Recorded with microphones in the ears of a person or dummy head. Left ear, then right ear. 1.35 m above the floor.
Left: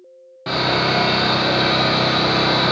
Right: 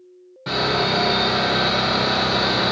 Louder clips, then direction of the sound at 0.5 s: Left 2 dB; 10° left (ahead or behind).